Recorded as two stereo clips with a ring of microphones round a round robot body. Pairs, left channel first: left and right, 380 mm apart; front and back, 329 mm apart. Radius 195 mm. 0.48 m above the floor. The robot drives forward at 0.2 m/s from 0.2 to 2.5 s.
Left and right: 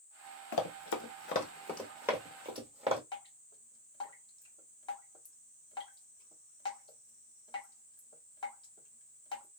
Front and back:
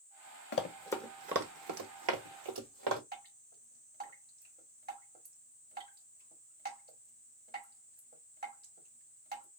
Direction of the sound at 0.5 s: 50° left.